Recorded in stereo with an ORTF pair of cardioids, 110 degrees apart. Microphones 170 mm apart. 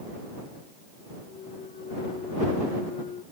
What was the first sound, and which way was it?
A clunk, 45° left.